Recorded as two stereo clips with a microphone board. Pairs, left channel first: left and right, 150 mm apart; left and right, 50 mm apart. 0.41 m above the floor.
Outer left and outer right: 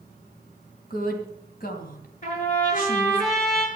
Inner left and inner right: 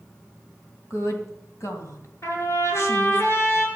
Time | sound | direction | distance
0.9 | a woman speaking | 65° left (ahead or behind) | 3 m
2.2 | a trumpet | 55° left (ahead or behind) | 6.5 m